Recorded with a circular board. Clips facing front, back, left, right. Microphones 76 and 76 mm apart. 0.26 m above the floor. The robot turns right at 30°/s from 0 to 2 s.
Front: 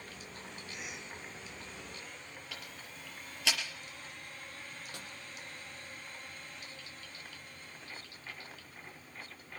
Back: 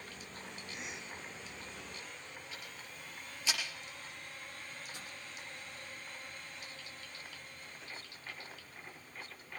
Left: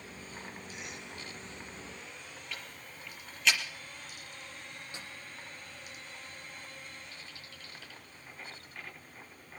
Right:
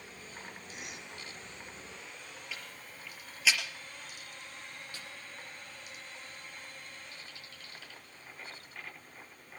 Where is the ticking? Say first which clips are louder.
Front 1 dB, left 2 dB; 5° right, 4 m.